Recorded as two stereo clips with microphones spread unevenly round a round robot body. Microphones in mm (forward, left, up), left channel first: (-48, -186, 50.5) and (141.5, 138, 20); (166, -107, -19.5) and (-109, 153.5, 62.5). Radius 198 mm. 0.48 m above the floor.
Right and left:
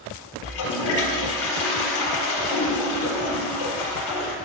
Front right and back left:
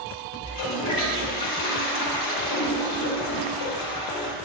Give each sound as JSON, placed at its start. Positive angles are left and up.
{"t": 0.4, "sound": "a toilet flushing", "azimuth_deg": -95, "distance_m": 4.0}